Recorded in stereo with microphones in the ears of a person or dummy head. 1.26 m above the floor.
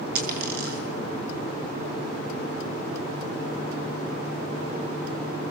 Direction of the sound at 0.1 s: 65° right (ahead or behind).